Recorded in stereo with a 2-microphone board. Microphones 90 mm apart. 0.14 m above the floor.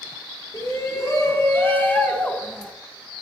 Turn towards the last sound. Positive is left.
turn(degrees=5)  # may be behind; listen again after turning